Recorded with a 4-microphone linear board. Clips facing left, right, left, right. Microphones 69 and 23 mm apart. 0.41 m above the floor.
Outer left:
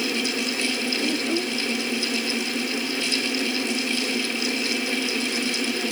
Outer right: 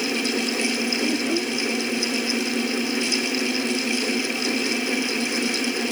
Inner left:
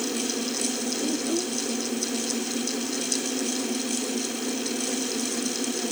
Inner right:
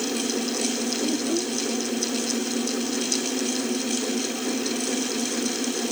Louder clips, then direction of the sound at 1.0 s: Outer right 1 dB, inner right 1 dB; centre (ahead or behind).